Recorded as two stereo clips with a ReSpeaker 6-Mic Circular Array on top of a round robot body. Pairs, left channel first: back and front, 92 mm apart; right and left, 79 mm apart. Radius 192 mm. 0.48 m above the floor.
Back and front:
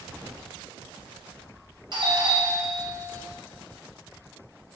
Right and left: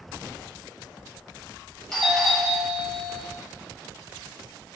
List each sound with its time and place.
1.9 s a doorbell: 10° right, 2.5 m